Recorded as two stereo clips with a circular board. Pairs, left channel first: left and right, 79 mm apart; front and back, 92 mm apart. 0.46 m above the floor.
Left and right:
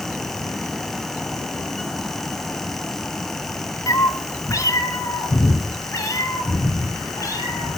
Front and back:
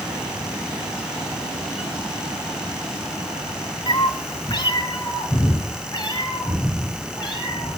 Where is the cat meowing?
40° left, 1.2 m; by 7.7 s 35° left, 7 m.